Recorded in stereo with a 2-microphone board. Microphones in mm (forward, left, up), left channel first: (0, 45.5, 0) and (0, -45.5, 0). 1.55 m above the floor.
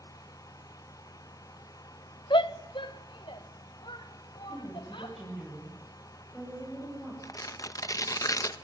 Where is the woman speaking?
Centre (ahead or behind), 9 m.